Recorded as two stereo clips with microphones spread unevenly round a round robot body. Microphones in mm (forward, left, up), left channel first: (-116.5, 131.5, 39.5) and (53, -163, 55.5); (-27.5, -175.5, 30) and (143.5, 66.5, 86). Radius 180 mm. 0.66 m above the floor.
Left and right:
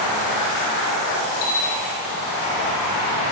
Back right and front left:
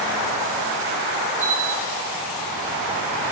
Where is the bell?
155° left, 1.4 m.